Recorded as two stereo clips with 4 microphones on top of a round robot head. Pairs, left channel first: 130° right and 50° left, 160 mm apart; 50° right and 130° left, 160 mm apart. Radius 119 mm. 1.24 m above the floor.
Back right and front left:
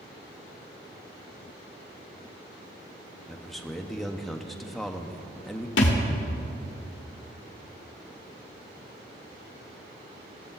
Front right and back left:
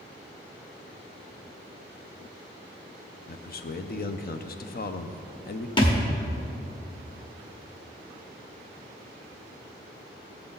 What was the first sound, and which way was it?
A man speaking, 40° right.